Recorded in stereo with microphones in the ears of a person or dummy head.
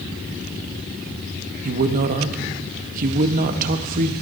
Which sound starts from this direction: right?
A man speaking, at 1.6 s.